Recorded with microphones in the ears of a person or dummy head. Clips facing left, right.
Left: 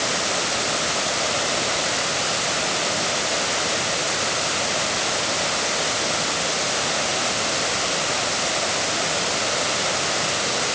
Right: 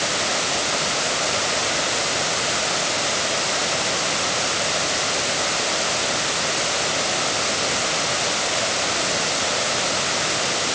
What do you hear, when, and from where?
Only background noise.